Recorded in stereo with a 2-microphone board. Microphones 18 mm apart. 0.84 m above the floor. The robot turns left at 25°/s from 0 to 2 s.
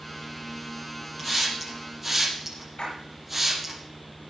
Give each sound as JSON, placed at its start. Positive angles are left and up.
{"t": 1.2, "sound": "a hiss", "side_deg": 15, "distance_m": 5.0}
{"t": 2.8, "sound": "a splash", "side_deg": 70, "distance_m": 8.0}